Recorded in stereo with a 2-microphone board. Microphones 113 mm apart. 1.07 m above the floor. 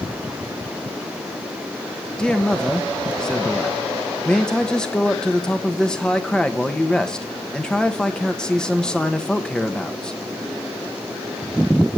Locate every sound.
2.2 s a man speaking: 5° left (ahead or behind), 1.1 m